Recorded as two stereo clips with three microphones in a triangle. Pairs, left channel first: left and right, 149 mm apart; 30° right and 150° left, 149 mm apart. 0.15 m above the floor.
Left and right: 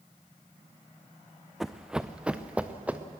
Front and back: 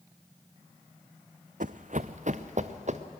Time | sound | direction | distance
1.6 | running footsteps | straight behind | 0.6 m